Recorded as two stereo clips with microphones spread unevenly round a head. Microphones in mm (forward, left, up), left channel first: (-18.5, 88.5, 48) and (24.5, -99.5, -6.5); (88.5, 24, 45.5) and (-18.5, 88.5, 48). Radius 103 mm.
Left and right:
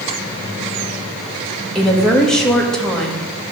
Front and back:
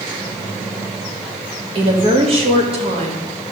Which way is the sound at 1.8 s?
165° right.